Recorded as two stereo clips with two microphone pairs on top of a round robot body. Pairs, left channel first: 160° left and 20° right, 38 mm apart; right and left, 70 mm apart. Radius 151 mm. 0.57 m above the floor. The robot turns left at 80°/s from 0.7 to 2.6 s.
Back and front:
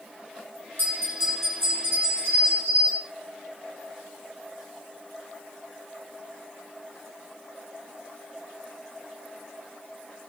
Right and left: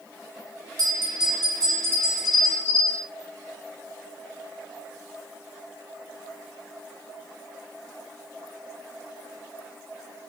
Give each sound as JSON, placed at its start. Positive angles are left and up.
{"t": 0.8, "sound": "a bell", "azimuth_deg": 120, "distance_m": 1.2}